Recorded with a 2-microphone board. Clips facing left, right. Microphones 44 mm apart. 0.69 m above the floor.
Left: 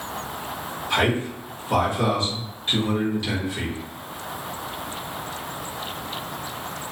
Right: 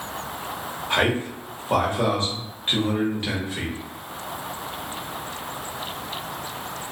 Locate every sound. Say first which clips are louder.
0.9 s a man speaking: even; 35° right (ahead or behind), 1.2 m